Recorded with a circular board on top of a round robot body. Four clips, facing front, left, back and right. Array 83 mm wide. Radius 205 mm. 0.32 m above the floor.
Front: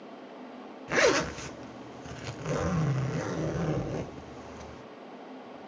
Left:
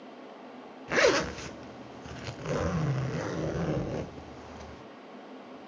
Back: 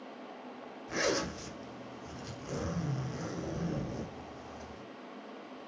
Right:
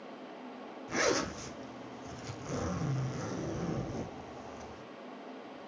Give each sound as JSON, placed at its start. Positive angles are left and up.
{"t": 0.9, "sound": "a zipper", "azimuth_deg": 50, "distance_m": 1.6}